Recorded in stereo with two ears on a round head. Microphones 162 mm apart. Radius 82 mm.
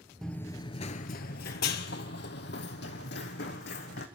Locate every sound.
0.2 s running footsteps: centre (ahead or behind), 0.7 m; by 4.1 s 60° left (ahead or behind), 2.5 m